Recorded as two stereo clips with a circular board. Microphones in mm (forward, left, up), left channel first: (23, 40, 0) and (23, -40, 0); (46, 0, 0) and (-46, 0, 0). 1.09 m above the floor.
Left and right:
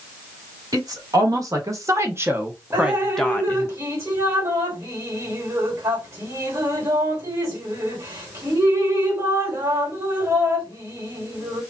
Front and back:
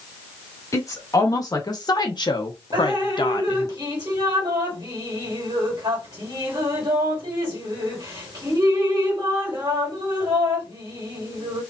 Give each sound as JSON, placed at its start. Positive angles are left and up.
{"t": 0.7, "sound": "a woman speaking", "azimuth_deg": -50, "distance_m": 1.7}
{"t": 2.7, "sound": "dripping", "azimuth_deg": -140, "distance_m": 1.9}